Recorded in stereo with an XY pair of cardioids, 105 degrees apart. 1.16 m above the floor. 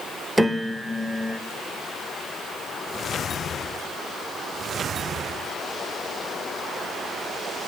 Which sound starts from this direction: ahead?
A piano, at 0.4 s.